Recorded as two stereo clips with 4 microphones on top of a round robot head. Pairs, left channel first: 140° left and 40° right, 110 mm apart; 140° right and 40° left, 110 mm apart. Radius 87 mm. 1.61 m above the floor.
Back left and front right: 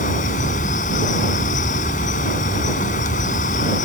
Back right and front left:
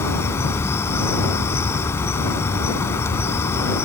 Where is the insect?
150° left.